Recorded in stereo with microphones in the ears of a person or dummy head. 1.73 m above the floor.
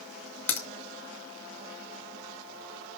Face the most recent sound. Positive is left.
turn(degrees=20)  # may be behind; listen again after turning